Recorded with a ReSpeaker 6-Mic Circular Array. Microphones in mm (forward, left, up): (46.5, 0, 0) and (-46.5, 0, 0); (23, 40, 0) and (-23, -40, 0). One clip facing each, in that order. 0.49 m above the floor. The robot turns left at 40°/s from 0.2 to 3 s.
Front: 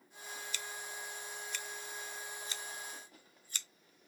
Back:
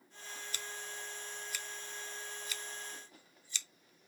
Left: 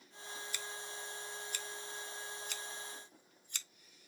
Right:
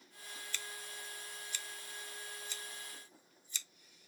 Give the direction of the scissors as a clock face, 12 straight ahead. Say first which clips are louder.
Even, left 2 dB; 7 o'clock.